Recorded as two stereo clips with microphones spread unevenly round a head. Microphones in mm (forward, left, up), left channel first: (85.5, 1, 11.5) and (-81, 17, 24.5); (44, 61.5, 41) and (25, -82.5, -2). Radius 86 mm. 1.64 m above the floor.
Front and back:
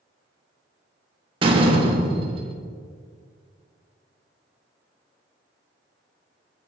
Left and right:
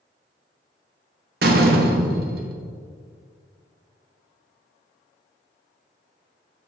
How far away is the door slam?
About 1.0 m.